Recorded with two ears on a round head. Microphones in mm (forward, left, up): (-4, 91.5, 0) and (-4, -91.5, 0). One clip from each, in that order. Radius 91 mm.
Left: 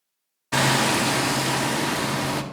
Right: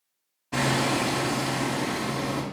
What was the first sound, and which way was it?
Hammering, 45° left (ahead or behind).